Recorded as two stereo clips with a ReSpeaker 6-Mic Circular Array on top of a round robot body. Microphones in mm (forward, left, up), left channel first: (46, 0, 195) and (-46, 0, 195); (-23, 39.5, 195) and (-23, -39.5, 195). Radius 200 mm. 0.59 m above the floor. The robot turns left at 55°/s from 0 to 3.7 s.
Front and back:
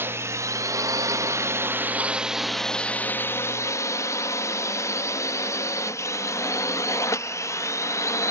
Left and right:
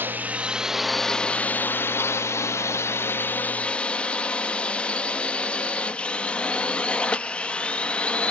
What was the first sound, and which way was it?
A drone, 130° right.